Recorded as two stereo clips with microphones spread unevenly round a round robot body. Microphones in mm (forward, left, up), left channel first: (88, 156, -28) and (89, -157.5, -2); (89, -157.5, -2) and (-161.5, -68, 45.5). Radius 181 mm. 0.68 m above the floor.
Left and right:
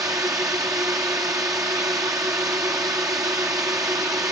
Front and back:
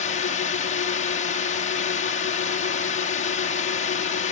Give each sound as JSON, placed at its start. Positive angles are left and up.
{"t": 0.0, "sound": "a drone", "azimuth_deg": -10}